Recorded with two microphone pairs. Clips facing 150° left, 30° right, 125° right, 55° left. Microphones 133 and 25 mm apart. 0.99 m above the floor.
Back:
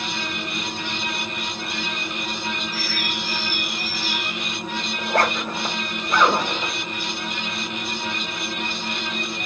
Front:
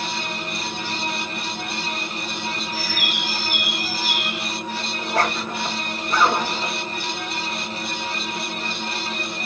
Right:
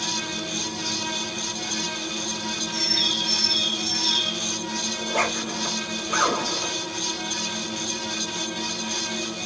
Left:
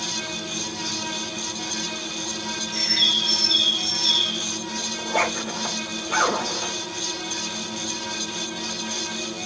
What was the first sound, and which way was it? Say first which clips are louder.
A bird: front 1 dB, left 3 dB; 40° left.